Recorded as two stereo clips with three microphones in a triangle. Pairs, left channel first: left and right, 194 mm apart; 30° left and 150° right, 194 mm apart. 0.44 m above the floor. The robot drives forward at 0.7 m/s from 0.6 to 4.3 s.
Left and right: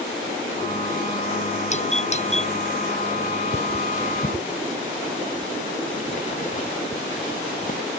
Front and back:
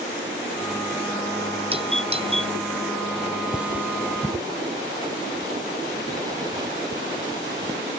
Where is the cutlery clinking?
125° left; by 7.8 s 140° left.